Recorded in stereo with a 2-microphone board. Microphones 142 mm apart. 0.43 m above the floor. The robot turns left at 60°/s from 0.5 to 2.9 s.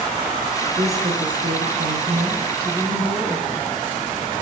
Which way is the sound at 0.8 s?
40° right.